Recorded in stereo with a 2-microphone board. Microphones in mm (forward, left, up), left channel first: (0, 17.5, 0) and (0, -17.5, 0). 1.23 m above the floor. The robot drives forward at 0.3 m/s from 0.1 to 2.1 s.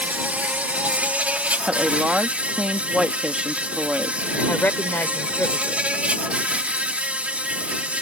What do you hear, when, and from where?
0.0 s an insect: 50° right (ahead or behind); by 8.0 s 40° right (ahead or behind)
1.6 s a woman speaking: 25° right (ahead or behind)
4.5 s a woman speaking: 65° left (ahead or behind)